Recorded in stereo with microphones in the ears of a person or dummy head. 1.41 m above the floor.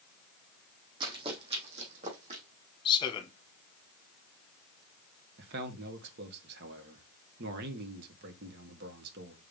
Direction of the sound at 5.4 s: 70° right (ahead or behind).